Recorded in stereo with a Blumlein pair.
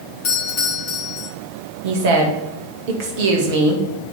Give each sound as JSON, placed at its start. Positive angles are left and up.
{"t": 0.2, "sound": "a doorbell", "azimuth_deg": 40, "distance_m": 2.5}
{"t": 1.8, "sound": "a woman speaking", "azimuth_deg": -50, "distance_m": 2.0}